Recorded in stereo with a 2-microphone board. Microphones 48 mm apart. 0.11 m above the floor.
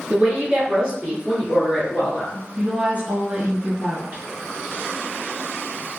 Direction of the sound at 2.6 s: 35° right (ahead or behind).